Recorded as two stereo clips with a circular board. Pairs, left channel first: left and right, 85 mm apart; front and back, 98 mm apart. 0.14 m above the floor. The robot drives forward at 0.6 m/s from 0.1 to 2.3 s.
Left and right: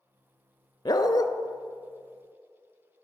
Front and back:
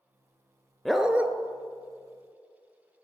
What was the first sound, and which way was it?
A dog barking, 90° left.